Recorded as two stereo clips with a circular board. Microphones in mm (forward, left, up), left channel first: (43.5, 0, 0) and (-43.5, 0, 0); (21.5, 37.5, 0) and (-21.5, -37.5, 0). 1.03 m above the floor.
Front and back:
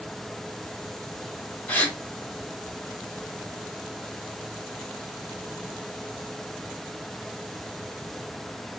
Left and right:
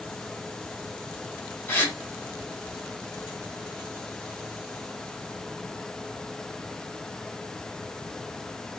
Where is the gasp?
45° left, 0.8 m.